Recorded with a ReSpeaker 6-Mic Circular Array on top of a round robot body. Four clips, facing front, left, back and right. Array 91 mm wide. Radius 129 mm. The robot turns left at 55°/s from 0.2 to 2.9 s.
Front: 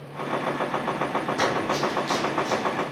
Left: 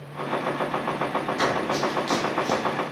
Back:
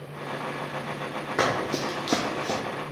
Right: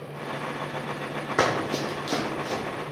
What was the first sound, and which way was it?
Running footsteps, 110° right.